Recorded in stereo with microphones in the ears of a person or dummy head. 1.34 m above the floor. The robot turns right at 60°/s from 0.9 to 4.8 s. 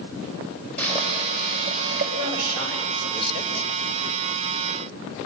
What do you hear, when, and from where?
0.8 s boiling: 170° left, 4 m; by 2.1 s 120° right, 4 m
2.2 s a man speaking: 90° right, 4.5 m; by 3.7 s straight ahead, 4.5 m